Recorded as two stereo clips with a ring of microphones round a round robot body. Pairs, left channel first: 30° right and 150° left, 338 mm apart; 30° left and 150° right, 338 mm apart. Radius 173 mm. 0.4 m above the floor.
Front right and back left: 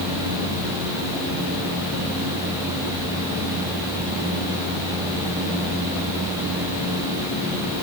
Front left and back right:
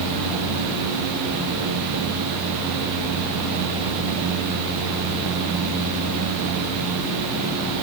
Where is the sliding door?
No sliding door in this recording.